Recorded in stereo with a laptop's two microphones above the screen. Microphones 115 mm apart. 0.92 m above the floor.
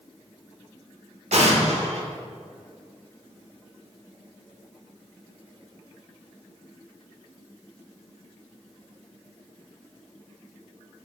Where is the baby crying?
I don't hear a baby crying.